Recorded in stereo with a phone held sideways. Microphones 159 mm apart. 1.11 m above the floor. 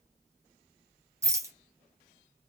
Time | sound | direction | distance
1.2 | a rattle | 15° right (ahead or behind) | 0.7 m